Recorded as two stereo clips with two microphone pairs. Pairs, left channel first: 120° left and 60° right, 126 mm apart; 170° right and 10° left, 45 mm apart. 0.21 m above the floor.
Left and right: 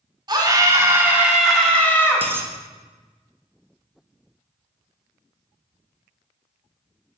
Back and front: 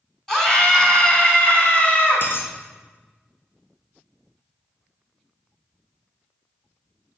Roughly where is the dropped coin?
Behind right.